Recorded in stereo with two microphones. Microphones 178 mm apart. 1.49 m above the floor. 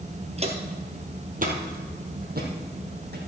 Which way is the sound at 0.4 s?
35° right (ahead or behind).